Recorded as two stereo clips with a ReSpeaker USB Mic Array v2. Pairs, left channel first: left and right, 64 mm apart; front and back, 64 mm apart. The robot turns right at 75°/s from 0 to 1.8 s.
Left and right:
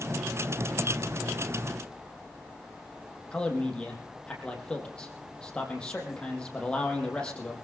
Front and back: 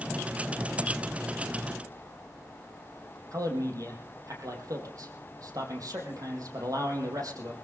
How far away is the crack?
I don't hear a crack.